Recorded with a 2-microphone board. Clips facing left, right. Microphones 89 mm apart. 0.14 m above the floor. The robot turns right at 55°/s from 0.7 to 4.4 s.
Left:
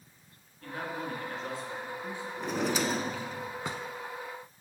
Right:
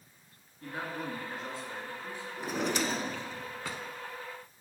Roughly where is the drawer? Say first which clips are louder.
Left 1 dB; centre.